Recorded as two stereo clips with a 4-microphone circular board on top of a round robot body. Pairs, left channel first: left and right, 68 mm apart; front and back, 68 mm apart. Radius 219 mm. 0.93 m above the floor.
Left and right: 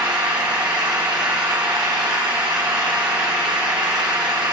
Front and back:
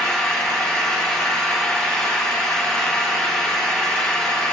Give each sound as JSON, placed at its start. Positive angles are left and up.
{"t": 0.0, "sound": "an engine running", "azimuth_deg": -75, "distance_m": 0.9}